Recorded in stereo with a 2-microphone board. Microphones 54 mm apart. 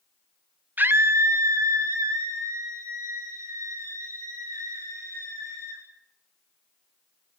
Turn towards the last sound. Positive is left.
turn(degrees=-85)